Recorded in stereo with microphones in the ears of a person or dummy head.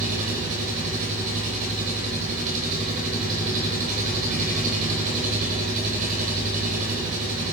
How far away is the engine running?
About 6 m.